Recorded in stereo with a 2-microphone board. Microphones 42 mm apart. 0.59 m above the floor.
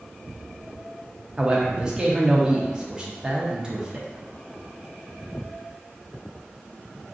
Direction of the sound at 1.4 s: 20° right (ahead or behind).